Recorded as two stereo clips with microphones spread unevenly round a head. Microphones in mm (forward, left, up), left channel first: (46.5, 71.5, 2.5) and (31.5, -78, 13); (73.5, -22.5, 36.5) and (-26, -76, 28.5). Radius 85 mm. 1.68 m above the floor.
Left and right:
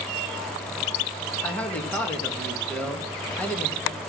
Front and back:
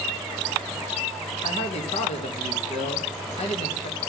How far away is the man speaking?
About 2.5 m.